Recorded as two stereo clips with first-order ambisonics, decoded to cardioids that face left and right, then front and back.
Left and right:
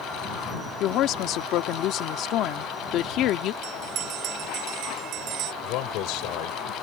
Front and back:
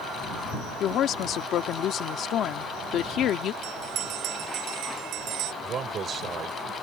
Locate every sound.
0.8 s a woman speaking: 50° left
3.6 s a bell: 135° right
5.6 s a man speaking: 115° left